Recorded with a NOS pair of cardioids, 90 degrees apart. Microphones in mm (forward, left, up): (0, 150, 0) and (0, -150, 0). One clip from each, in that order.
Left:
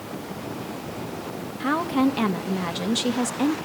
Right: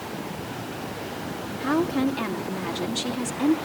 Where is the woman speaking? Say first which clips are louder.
Left 2 dB; 45° left, 2.5 m.